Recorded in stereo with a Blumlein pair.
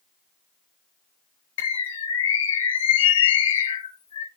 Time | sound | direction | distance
1.6 | a bird | 60° left | 0.7 m